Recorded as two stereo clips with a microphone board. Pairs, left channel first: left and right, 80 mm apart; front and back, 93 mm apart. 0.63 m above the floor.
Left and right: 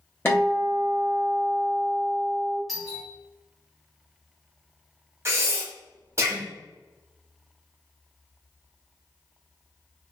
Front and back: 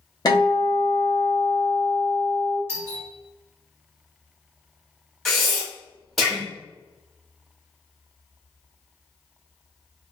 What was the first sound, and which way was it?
A guitar, 35° left.